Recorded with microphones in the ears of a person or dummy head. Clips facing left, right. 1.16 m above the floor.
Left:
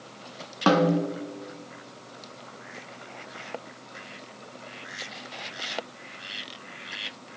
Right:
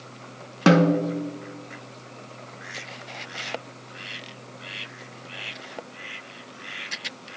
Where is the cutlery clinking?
I don't hear cutlery clinking.